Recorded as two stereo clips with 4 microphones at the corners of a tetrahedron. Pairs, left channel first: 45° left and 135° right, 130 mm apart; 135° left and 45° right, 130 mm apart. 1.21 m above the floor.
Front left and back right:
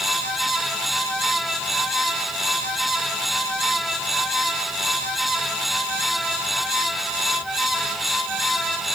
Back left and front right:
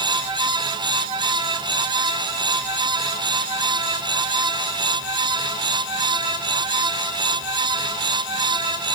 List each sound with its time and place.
Only background noise.